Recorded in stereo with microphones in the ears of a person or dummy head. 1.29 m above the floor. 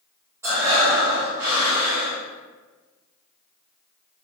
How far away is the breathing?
About 1.3 m.